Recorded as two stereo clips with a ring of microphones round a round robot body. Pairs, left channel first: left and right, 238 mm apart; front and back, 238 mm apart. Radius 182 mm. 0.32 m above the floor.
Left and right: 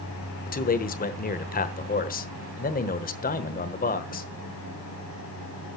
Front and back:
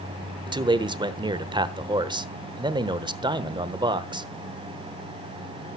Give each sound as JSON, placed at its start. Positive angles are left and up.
{"t": 0.5, "sound": "a man speaking", "azimuth_deg": 120, "distance_m": 1.1}